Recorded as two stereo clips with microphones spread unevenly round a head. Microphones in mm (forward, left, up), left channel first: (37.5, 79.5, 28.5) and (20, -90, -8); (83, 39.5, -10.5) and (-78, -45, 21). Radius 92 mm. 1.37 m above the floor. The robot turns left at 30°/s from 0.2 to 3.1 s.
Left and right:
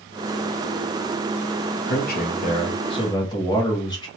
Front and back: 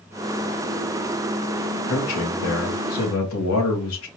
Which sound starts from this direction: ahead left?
A man speaking, at 1.9 s.